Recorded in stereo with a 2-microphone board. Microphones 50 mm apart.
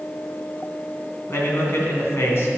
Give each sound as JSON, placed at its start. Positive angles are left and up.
{"t": 1.3, "sound": "a man speaking", "side_deg": 55, "distance_m": 2.0}